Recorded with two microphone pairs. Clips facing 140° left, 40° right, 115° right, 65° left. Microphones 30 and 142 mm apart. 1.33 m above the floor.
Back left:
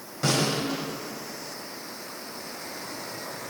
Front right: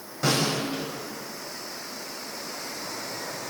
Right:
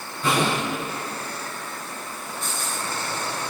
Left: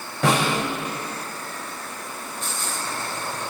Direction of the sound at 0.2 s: 50° left.